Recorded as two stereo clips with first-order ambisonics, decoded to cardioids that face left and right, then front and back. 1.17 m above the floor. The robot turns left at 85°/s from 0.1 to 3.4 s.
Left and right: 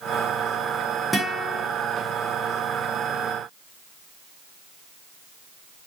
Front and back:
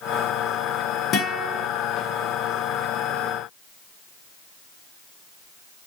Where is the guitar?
Straight ahead, 0.7 m; by 1.7 s 45° right, 0.7 m.